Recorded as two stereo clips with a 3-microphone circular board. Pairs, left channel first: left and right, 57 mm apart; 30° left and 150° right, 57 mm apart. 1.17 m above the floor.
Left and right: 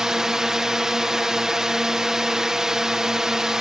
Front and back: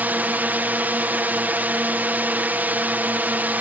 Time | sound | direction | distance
0.0 | a drone | 165° right | ?